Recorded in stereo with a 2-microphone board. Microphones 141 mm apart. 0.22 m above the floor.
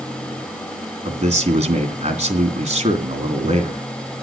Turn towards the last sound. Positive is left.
turn(degrees=-50)  # may be behind; listen again after turning